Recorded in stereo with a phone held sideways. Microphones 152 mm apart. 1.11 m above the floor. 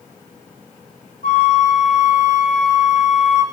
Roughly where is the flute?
Left.